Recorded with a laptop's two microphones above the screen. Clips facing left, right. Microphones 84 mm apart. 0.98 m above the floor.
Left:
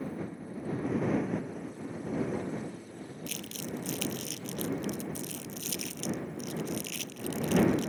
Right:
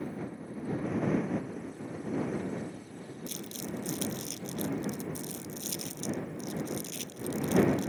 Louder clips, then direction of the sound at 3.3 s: Even; 80° left.